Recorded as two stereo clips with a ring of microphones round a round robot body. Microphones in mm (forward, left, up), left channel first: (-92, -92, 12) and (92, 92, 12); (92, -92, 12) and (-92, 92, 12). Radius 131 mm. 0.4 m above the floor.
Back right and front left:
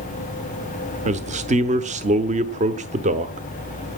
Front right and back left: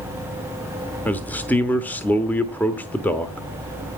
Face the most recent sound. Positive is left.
turn(degrees=30)